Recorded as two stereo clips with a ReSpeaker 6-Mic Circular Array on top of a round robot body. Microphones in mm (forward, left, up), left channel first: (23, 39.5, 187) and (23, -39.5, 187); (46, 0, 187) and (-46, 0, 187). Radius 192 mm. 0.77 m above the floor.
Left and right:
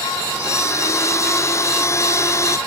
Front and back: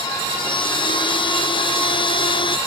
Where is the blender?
35° left.